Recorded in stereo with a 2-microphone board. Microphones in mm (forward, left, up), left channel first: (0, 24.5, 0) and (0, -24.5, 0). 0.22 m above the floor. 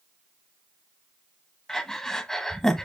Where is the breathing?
10° left (ahead or behind), 1.3 m.